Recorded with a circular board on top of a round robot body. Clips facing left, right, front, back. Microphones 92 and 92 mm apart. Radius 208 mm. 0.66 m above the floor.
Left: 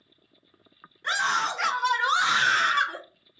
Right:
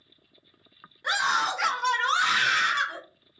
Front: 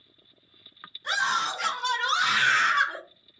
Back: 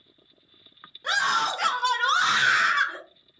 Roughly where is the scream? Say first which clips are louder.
Even, back 2 dB; behind.